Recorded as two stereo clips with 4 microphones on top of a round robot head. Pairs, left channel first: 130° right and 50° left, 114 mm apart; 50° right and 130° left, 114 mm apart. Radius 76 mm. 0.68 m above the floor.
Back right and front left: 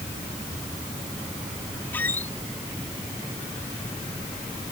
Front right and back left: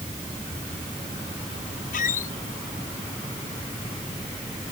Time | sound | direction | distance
1.9 | a squeak | 55° right | ?